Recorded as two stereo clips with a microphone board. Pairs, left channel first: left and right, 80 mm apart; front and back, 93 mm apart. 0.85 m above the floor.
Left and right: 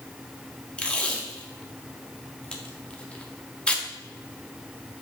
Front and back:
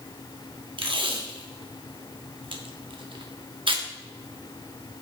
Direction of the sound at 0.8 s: 165° left.